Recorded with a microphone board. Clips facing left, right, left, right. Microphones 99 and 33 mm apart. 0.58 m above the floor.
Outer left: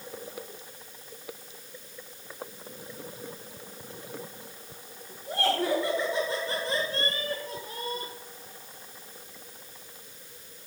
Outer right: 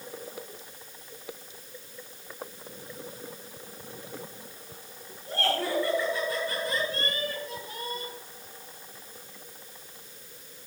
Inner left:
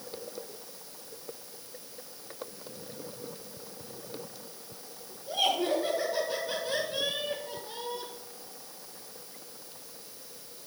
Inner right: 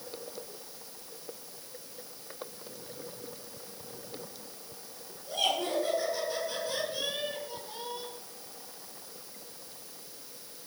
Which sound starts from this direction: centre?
Laughter, at 5.3 s.